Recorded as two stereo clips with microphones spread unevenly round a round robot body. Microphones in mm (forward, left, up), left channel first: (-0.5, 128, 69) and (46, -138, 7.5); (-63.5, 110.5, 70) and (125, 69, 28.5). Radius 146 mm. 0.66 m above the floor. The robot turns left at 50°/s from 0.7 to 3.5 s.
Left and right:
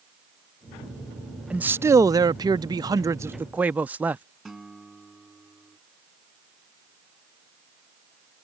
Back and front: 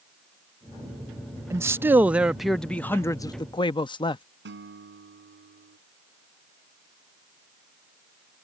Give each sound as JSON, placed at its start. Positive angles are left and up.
{"t": 1.5, "sound": "a man speaking", "azimuth_deg": -30}
{"t": 4.5, "sound": "a guitar", "azimuth_deg": 10}